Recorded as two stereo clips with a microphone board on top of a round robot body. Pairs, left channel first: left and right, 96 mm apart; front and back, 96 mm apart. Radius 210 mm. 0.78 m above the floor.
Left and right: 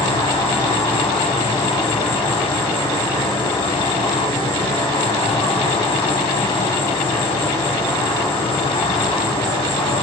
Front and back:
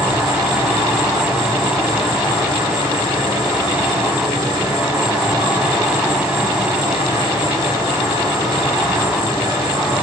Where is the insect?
125° left, 3.5 m.